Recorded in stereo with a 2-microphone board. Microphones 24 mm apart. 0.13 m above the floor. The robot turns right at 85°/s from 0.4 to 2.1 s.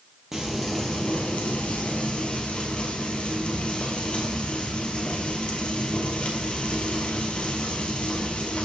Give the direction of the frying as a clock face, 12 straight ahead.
12 o'clock.